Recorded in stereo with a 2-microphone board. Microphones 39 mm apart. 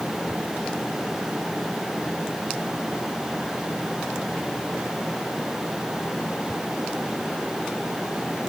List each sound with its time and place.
Only background noise.